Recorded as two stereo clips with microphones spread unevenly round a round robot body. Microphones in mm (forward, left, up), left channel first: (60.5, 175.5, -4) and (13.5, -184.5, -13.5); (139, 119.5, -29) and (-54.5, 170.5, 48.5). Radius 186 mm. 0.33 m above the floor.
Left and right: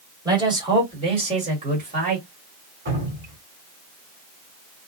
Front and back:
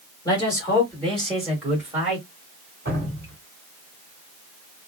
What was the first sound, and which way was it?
A man speaking, 25° right.